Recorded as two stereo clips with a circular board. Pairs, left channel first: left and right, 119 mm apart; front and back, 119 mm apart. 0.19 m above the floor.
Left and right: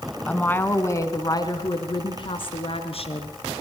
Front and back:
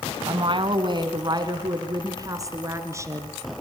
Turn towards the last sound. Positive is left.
turn(degrees=115)